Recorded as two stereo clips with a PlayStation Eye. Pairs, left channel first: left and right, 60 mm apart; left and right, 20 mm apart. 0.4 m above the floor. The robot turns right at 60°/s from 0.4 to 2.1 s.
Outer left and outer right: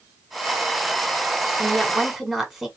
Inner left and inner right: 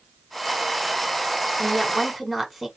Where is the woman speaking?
40° right, 1.5 m; by 2.7 s 5° right, 1.5 m.